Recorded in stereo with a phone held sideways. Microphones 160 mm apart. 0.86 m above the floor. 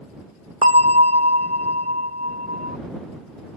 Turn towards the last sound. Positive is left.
turn(degrees=-40)  # may be behind; listen again after turning